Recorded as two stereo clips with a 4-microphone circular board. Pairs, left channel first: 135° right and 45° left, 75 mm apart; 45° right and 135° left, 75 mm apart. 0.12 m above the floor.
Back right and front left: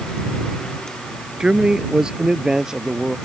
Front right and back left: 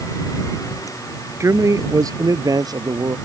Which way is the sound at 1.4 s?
120° left.